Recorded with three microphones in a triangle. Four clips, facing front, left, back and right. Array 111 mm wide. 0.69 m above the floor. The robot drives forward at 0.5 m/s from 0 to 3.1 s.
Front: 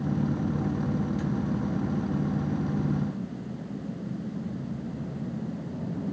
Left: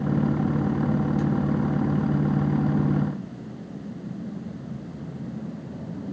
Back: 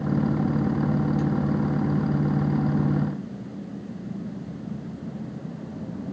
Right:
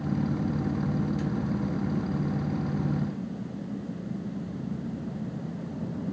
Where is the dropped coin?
I don't hear a dropped coin.